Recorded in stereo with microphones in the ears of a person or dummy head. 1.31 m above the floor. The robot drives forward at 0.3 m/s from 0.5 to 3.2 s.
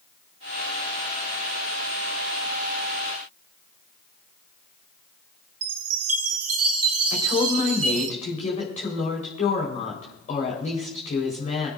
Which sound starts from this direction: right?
A chime, at 5.6 s.